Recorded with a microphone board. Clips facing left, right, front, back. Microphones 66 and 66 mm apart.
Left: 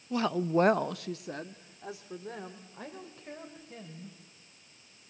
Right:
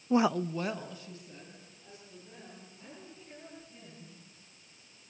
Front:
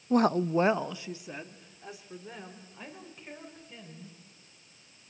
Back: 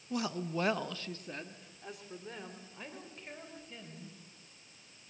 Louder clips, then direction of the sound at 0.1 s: Right 1 dB, front 11 dB; 40° right.